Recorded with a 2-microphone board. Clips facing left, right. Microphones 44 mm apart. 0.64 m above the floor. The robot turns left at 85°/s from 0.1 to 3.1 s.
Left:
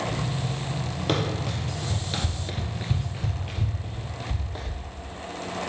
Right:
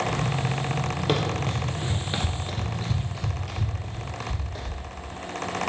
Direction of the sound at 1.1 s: 5° right (ahead or behind).